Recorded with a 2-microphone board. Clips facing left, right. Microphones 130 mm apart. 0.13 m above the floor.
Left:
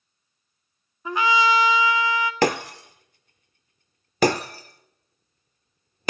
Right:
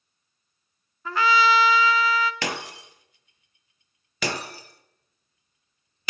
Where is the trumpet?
20° left (ahead or behind), 0.5 m.